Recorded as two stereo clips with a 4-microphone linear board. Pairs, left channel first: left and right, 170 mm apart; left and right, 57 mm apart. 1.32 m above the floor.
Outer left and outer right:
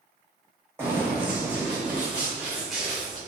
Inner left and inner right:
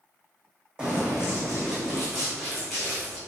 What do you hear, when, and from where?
0.8 s running footsteps: 15° right (ahead or behind), 3 m; by 3.2 s centre (ahead or behind), 5 m